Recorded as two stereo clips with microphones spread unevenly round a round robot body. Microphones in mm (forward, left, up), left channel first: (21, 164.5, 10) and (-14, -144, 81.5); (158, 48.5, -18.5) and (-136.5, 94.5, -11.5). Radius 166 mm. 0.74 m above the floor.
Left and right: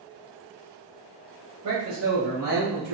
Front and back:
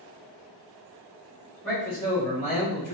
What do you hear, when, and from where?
1.6 s a man speaking: 95° right, 1.1 m; by 3.0 s 10° right, 1.1 m